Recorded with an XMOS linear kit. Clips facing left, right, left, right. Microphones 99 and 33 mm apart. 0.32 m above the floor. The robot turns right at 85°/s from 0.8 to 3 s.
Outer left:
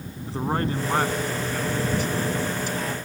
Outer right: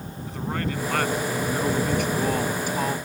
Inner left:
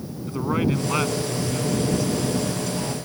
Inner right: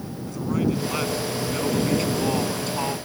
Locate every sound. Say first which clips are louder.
0.3 s a man speaking: outer left 4 dB, inner left 1 dB; 145° left; by 3.0 s 30° right